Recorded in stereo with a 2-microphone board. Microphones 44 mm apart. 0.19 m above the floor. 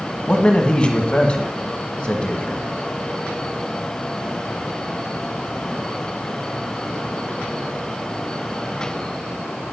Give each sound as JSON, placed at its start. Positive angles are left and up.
{"t": 0.3, "sound": "a man speaking", "side_deg": 25, "distance_m": 1.6}